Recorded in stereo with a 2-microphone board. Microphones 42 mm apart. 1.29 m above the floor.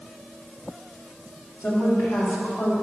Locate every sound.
1.6 s a woman speaking: 80° left, 3 m; by 2.7 s 50° left (ahead or behind), 3 m